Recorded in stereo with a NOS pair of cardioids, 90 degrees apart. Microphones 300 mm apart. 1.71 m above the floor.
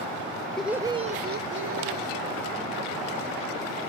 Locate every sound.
0.6 s laughter: straight ahead, 0.7 m; by 2.2 s 55° right, 1.2 m